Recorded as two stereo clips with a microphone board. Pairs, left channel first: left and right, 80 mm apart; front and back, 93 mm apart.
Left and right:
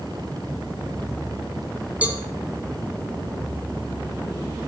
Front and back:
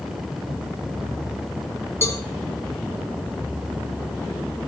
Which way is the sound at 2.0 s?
35° right.